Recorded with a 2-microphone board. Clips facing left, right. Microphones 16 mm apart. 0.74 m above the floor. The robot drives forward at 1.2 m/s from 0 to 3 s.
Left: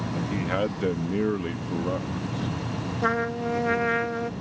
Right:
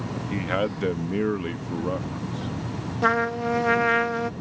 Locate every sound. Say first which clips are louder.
0.3 s a man speaking: right 2 dB; 5° right (ahead or behind)
3.0 s a trumpet: right 4 dB; 20° right (ahead or behind)